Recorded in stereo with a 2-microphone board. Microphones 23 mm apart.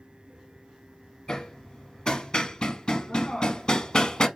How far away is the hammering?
About 0.5 m.